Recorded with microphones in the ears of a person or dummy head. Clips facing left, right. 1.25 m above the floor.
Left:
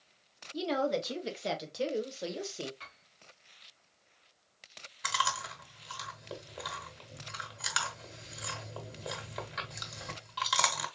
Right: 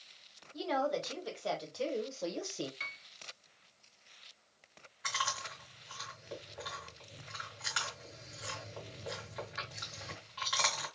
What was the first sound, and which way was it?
A woman speaking, 35° left (ahead or behind).